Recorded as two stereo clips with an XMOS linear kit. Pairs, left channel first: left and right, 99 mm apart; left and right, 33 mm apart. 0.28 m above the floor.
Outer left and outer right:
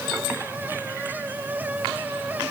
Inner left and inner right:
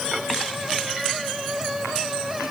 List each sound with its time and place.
Only background noise.